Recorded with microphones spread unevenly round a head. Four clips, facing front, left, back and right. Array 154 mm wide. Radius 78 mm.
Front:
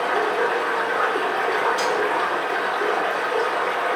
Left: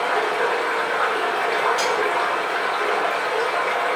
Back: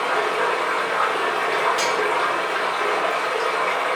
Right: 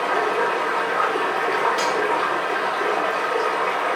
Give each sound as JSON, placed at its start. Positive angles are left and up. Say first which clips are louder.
{"t": 0.0, "sound": "running water", "louder": "even, even", "azimuth_deg": -80, "distance_m": 1.8}
{"t": 1.8, "sound": "cutlery clinking", "louder": "even, even", "azimuth_deg": -105, "distance_m": 1.4}